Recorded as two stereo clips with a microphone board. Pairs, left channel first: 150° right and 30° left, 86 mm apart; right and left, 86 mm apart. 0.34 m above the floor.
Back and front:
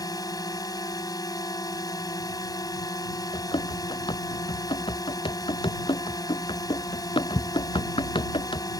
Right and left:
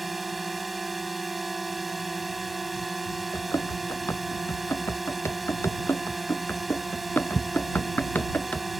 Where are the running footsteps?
145° right; by 8.7 s 160° right.